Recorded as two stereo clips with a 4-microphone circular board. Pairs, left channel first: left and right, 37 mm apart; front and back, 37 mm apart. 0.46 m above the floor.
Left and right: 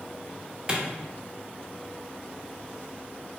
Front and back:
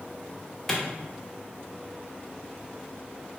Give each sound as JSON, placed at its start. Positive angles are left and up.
{"t": 0.7, "sound": "a clap", "azimuth_deg": -65, "distance_m": 1.0}